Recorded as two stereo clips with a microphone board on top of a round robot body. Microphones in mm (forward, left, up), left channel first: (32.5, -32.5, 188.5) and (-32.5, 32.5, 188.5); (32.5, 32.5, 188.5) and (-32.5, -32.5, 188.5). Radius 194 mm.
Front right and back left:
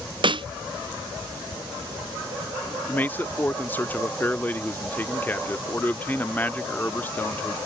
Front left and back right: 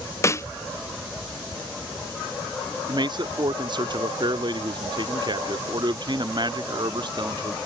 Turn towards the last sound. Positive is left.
turn(degrees=-115)